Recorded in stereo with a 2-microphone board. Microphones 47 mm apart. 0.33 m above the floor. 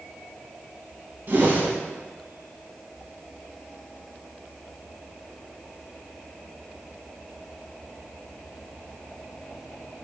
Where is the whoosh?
50° right (ahead or behind), 0.6 m.